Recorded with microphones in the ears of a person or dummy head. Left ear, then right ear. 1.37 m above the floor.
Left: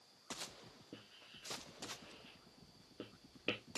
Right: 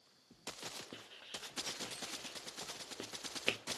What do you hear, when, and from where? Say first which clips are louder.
0.9 s writing: right 7 dB; 55° right (ahead or behind), 0.9 m